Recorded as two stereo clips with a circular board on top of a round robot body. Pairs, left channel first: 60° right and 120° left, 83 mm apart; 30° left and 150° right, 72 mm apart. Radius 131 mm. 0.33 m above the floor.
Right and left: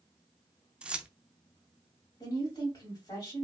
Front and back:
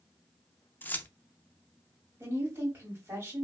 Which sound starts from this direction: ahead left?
Keys jangling, at 0.8 s.